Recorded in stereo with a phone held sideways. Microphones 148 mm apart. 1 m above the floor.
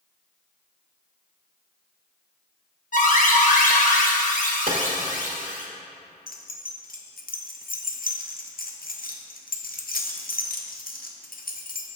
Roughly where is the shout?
I don't hear a shout.